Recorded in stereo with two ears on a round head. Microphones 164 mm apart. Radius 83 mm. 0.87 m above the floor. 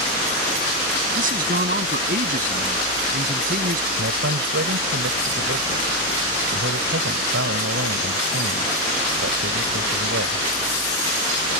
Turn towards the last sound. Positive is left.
turn(degrees=-80)